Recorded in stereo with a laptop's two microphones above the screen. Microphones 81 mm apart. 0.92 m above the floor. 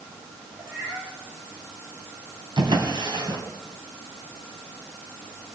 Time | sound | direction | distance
0.6 | a cat meowing | 25° right (ahead or behind) | 8 m
2.6 | a drawer | 70° right (ahead or behind) | 3 m